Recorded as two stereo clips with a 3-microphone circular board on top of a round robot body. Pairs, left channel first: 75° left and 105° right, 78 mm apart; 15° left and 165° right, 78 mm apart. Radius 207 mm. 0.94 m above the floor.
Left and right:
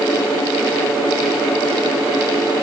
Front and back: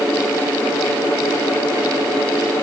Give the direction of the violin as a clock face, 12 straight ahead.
No violin in this recording.